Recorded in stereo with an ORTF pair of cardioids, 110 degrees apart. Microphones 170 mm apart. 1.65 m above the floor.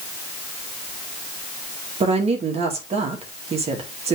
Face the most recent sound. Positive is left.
turn(degrees=-40)